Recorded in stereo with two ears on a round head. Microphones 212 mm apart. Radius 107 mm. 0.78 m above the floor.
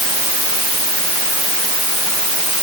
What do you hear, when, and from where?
Only background noise.